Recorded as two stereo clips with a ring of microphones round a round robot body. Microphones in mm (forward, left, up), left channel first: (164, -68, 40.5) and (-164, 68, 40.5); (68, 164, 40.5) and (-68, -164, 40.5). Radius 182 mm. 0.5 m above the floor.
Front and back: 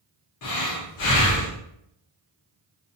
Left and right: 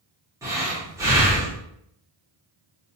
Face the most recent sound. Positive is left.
turn(degrees=-35)